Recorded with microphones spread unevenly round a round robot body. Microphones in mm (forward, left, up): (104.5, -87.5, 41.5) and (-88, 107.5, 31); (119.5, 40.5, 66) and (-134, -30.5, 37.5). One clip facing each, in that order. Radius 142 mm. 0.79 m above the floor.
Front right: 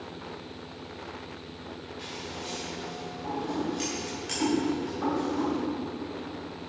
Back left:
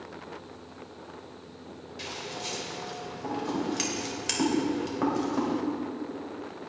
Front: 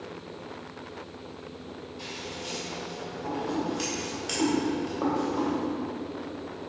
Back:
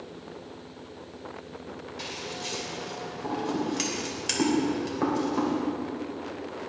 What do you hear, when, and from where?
2.0 s scissors: 140° left, 2.5 m